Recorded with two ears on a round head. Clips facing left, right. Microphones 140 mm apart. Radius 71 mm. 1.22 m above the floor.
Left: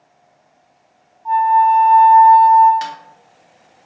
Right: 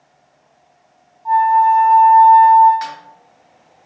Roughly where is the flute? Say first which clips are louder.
Even; centre.